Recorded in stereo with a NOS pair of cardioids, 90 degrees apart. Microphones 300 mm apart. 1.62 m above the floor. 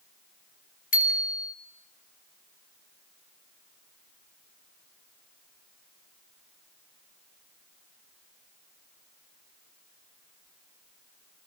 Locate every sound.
0.9 s a bicycle bell: 30° left, 3.5 m